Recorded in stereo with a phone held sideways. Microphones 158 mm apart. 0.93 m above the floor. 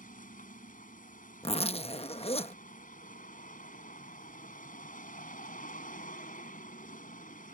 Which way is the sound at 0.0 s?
60° left (ahead or behind).